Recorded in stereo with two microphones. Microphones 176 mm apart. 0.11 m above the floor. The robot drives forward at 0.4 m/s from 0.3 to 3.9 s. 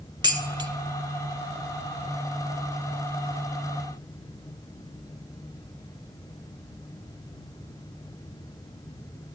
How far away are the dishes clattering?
About 0.9 m.